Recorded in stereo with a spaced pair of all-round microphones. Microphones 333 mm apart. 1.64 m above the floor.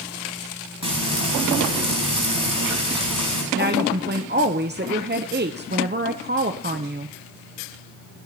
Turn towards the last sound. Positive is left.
turn(degrees=-30)  # may be behind; listen again after turning